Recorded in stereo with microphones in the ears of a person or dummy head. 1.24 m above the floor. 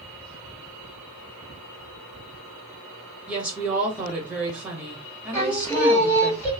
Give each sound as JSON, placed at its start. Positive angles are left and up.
{"t": 3.3, "sound": "a woman speaking", "side_deg": -5, "distance_m": 1.4}
{"t": 5.3, "sound": "singing", "side_deg": 10, "distance_m": 1.9}